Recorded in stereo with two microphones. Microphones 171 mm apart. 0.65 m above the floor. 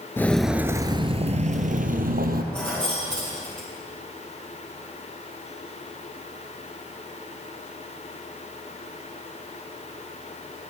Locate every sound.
0.2 s footsteps: 15° left (ahead or behind), 0.6 m; by 2.4 s 65° right (ahead or behind), 1.3 m
2.5 s keys jangling: 5° left (ahead or behind), 5 m